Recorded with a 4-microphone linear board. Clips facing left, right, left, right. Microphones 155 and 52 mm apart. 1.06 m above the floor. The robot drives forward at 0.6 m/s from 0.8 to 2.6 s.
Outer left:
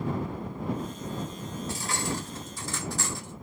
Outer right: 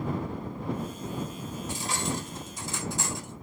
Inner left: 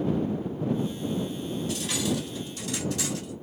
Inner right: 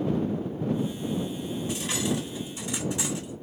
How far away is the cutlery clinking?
About 2.5 m.